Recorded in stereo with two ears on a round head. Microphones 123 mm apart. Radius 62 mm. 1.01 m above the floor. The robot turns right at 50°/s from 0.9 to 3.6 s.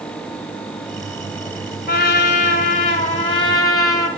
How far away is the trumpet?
About 3 m.